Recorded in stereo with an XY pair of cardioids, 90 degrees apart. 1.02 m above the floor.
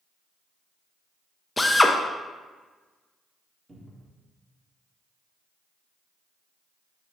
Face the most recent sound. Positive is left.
turn(degrees=-25)